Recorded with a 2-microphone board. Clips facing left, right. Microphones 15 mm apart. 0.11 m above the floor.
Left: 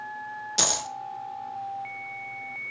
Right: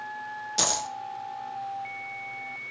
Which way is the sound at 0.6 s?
10° left (ahead or behind).